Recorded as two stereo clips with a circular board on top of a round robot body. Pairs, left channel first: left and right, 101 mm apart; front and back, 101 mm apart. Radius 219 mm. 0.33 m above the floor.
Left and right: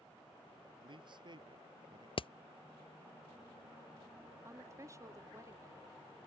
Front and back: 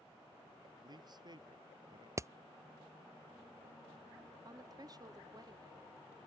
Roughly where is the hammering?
Behind left.